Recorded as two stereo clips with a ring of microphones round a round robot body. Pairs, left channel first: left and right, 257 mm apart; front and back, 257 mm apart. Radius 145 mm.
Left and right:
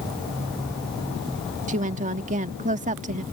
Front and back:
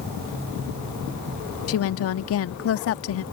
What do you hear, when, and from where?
1.7 s a woman speaking: 30° right